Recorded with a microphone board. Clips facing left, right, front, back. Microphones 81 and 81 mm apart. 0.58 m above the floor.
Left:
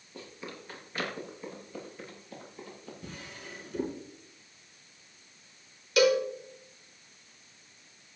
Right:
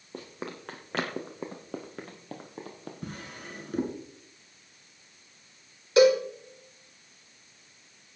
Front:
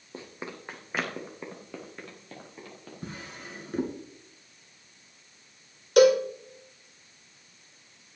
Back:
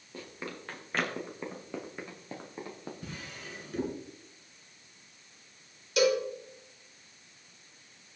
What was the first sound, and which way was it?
Running footsteps, 60° right.